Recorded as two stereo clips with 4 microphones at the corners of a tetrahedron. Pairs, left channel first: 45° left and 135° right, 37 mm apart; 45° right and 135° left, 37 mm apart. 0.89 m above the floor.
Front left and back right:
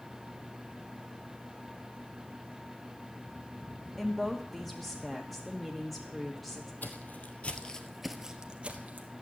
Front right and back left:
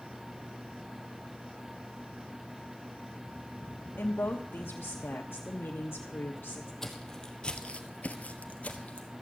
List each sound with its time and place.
4.0 s a woman speaking: 40° right, 1.3 m
6.8 s footsteps: 30° left, 1.8 m; by 9.1 s 105° right, 1.7 m